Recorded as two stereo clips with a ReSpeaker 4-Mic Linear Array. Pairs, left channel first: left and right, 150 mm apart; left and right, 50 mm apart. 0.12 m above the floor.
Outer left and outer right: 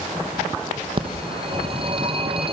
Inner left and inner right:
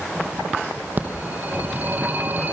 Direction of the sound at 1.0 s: 35° right (ahead or behind).